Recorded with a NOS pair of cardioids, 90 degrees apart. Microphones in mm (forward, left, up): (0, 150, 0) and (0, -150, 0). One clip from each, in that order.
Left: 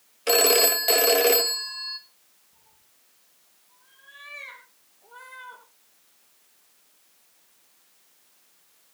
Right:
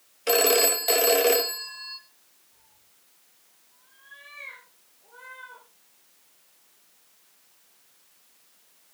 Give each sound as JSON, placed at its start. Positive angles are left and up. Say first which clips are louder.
{"t": 0.3, "sound": "a phone ringing", "louder": "left 2 dB", "azimuth_deg": 10, "distance_m": 1.3}
{"t": 2.5, "sound": "a cat meowing", "louder": "even", "azimuth_deg": 45, "distance_m": 5.5}